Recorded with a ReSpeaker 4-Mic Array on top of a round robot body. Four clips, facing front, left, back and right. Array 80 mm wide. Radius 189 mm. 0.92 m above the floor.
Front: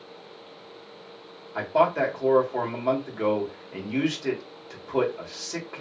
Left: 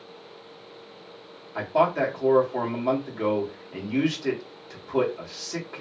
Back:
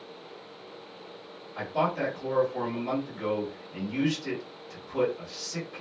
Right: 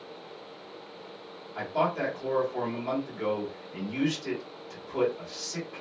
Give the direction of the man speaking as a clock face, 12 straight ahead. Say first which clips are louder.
Left 6 dB, front 6 dB; 11 o'clock.